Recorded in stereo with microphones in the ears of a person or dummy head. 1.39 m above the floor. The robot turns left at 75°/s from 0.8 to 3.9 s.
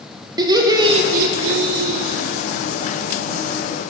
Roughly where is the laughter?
Ahead right.